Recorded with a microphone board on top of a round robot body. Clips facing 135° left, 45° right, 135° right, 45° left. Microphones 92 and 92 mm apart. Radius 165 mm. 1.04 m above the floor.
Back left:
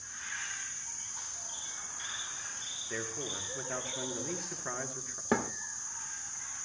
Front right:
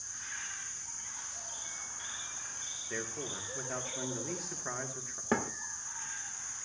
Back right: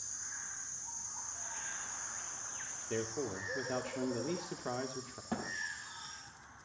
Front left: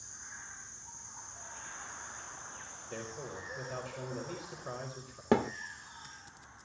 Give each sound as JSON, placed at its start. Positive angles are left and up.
{"t": 2.9, "sound": "a man speaking", "azimuth_deg": -135, "distance_m": 2.5}
{"t": 5.3, "sound": "a thud", "azimuth_deg": 50, "distance_m": 0.6}